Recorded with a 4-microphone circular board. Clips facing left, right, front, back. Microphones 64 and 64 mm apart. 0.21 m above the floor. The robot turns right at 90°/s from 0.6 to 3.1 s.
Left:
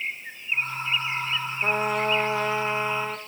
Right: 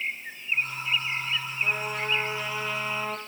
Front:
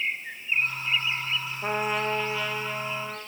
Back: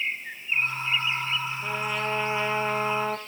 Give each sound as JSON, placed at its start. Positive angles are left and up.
{"t": 1.6, "sound": "a trumpet", "azimuth_deg": 45, "distance_m": 1.4}